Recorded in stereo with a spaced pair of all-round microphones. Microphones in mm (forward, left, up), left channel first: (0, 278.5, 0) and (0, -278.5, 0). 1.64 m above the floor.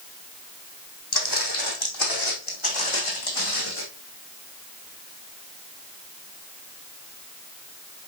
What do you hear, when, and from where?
1.1 s footsteps: 45° left (ahead or behind), 3 m; by 3.8 s 65° left (ahead or behind), 4.5 m